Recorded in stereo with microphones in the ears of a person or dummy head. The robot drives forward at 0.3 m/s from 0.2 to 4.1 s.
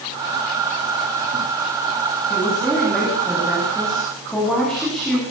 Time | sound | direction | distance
2.3 | a woman speaking | 10° left (ahead or behind) | 9.5 m